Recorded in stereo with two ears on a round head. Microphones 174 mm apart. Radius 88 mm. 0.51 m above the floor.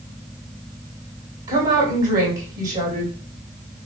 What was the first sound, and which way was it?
A woman speaking, 20° right (ahead or behind).